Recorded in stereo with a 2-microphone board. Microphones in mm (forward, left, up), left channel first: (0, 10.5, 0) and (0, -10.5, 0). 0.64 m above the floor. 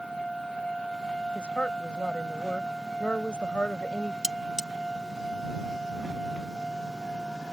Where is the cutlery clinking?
30° right (ahead or behind).